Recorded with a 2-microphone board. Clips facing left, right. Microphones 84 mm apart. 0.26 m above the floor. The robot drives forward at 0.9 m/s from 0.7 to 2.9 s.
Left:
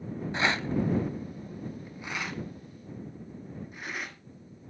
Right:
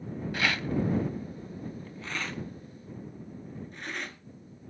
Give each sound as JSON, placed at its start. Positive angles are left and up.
{"t": 0.3, "sound": "a rattle", "side_deg": 25, "distance_m": 0.6}